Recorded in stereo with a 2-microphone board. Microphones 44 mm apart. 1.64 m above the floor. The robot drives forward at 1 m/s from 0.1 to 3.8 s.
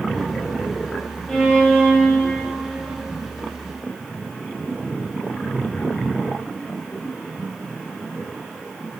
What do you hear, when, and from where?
1.3 s a violin: 10° left (ahead or behind), 2 m; by 3.0 s 5° left (ahead or behind), 3.5 m